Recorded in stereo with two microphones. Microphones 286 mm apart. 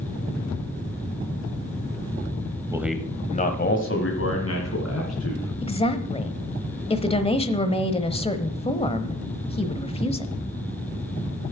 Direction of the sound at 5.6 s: 20° left (ahead or behind).